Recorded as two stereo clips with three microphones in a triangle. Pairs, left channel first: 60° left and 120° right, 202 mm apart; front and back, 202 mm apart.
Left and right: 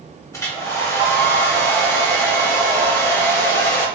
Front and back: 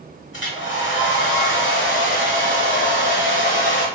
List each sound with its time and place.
0.3 s a hair dryer: 15° right, 0.9 m